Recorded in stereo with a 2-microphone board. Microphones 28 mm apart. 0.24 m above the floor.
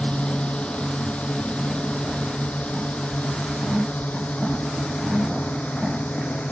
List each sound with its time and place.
0.0 s a drone: 45° left (ahead or behind); by 6.5 s 70° left (ahead or behind)